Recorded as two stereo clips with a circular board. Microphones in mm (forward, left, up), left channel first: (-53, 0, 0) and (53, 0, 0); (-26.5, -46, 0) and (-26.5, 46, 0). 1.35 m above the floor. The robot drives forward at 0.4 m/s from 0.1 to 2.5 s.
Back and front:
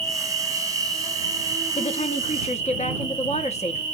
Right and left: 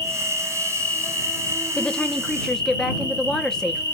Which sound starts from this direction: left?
An insect, at 0.0 s.